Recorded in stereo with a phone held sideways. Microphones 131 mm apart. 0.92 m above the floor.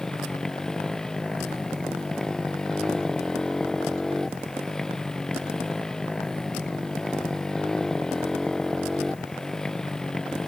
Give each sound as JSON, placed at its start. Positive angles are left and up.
{"t": 0.0, "sound": "a motorcycle", "side_deg": 5}